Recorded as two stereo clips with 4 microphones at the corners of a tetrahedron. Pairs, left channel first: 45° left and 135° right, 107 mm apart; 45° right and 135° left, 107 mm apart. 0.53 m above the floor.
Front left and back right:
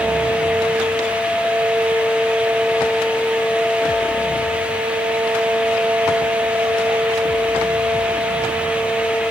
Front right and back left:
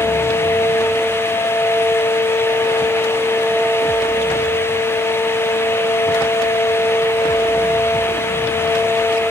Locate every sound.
Only background noise.